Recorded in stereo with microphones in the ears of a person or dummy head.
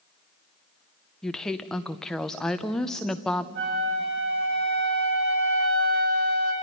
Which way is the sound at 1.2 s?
5° left (ahead or behind).